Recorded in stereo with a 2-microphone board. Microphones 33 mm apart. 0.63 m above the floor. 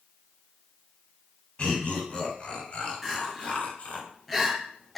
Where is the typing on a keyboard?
No typing on a keyboard in this recording.